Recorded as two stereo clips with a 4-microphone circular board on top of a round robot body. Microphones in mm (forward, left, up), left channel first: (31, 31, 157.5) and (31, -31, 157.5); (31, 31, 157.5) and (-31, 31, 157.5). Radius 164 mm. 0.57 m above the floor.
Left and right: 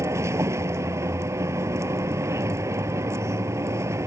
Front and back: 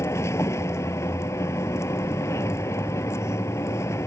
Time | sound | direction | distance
0.0 | a vehicle | 50° right | ?